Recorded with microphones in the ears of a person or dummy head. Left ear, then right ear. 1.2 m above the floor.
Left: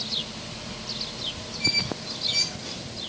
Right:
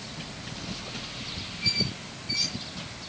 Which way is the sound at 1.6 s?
75° left (ahead or behind).